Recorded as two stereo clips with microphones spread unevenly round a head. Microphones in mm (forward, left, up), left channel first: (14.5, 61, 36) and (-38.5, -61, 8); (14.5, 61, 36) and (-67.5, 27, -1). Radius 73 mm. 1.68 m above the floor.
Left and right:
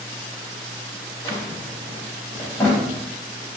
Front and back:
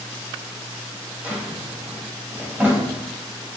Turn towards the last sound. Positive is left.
turn(degrees=100)